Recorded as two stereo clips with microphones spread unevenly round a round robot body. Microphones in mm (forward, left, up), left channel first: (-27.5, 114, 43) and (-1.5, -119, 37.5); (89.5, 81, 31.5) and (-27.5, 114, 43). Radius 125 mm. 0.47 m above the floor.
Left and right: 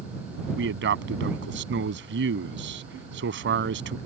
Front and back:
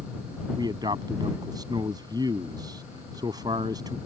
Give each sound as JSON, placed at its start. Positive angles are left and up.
{"t": 0.6, "sound": "a man speaking", "azimuth_deg": -125}